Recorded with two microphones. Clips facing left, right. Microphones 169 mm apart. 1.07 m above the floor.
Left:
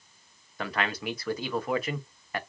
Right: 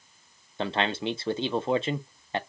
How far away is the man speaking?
About 0.5 m.